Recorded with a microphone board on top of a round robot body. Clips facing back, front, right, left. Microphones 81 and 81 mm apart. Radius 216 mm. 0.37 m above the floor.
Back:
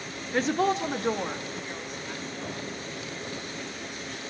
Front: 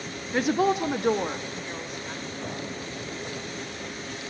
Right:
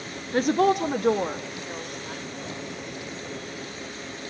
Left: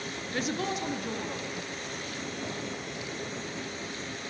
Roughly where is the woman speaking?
Right.